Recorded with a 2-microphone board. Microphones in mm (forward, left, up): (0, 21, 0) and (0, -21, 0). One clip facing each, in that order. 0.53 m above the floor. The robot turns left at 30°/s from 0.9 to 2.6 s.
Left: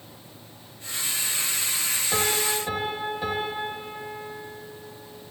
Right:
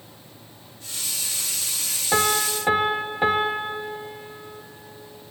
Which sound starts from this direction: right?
A piano, at 2.1 s.